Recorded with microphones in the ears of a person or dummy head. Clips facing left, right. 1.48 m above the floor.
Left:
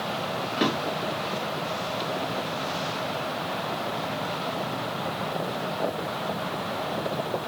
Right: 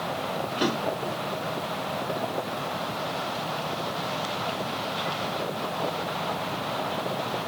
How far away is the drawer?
About 1.0 m.